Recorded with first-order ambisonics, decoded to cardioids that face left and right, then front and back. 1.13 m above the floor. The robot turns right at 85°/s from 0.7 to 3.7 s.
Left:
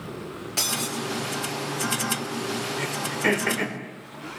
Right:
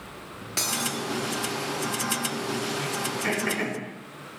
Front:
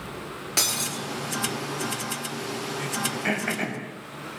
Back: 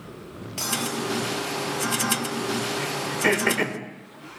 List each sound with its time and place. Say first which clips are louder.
0.6 s breaking glass: left 1 dB, front 2 dB; 10° right, 8 m; by 1.0 s 15° left, 8 m
2.8 s throat clearing: left 2 dB, back 2 dB; 105° left, 4.5 m; by 3.8 s 175° right, 4.5 m